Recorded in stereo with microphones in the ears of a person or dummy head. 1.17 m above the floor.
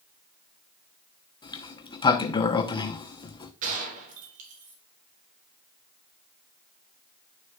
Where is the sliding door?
25° left (ahead or behind), 0.9 m.